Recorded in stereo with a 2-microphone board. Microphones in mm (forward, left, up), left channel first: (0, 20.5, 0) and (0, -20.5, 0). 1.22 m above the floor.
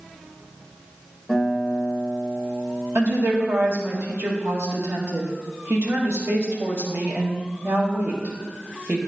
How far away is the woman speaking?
About 1.5 m.